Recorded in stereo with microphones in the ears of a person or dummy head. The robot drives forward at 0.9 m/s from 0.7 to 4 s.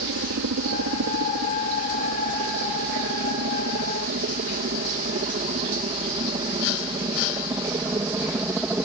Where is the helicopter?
65° right (ahead or behind); by 8.8 s 10° right (ahead or behind).